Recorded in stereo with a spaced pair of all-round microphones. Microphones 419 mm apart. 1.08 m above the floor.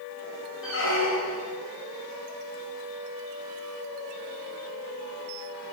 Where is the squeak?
35° left (ahead or behind), 0.6 m.